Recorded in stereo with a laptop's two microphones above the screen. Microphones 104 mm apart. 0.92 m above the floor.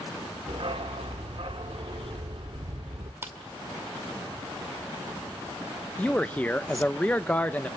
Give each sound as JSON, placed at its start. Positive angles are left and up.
{"t": 0.5, "sound": "a dog barking", "side_deg": -60, "distance_m": 0.8}
{"t": 3.2, "sound": "a clap", "side_deg": -20, "distance_m": 2.0}
{"t": 6.0, "sound": "a man speaking", "side_deg": 15, "distance_m": 0.6}